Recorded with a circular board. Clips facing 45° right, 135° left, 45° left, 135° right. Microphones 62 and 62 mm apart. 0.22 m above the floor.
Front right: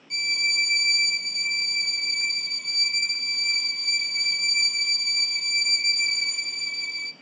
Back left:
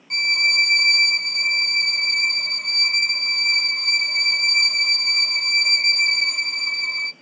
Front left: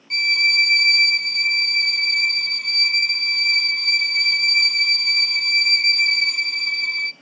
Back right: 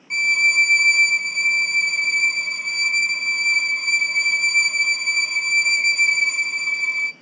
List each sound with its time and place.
0.1 s a violin: 155° left, 0.5 m